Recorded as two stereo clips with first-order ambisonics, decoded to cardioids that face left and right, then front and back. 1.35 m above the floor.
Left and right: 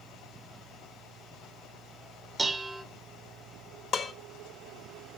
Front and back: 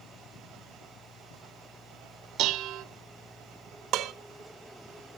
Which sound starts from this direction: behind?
Dishes clattering, at 2.4 s.